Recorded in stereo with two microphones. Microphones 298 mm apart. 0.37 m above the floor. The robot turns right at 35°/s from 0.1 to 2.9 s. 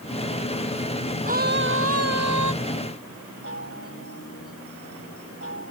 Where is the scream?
155° right; by 2.5 s 110° right.